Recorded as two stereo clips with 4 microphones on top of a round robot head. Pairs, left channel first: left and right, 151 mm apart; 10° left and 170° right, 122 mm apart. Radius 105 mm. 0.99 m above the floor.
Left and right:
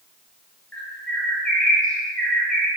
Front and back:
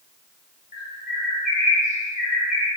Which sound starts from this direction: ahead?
A bird, at 0.7 s.